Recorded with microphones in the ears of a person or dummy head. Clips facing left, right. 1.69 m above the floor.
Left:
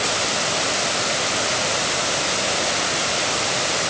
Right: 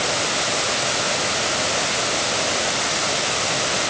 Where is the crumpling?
No crumpling in this recording.